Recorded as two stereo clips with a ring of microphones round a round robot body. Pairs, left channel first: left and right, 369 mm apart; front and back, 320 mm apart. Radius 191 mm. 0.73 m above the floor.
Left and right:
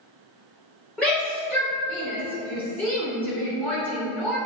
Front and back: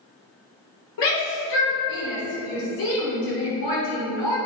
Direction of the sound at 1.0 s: 5° left.